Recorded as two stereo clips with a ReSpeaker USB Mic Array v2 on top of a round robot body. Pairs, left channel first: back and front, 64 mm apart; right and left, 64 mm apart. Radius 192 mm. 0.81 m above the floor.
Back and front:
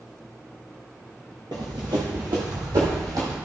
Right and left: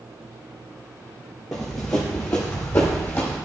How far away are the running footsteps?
About 0.8 m.